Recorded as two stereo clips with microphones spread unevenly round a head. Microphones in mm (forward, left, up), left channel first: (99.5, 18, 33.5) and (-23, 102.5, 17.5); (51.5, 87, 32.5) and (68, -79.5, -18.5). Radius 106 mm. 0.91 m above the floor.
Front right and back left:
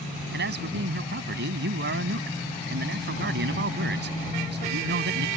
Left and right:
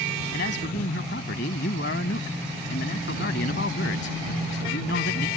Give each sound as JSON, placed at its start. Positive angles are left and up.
{"t": 0.3, "sound": "a man speaking", "azimuth_deg": 140}